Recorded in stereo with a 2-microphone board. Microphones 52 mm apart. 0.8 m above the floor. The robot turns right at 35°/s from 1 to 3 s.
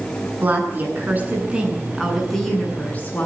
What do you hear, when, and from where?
0.4 s a woman speaking: 40° right, 8.5 m; by 3.3 s 30° left, 8.5 m